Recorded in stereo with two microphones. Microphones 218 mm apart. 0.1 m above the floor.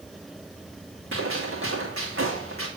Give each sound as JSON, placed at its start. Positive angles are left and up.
{"t": 1.1, "sound": "a gunshot", "side_deg": -85, "distance_m": 2.5}